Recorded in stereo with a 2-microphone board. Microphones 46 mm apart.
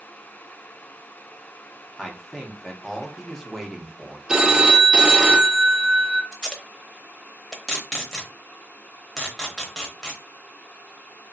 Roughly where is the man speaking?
Centre.